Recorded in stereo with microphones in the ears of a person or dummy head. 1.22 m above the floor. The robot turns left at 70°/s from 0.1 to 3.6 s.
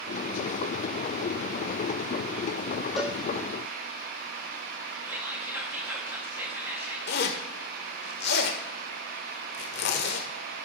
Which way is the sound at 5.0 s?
10° right (ahead or behind).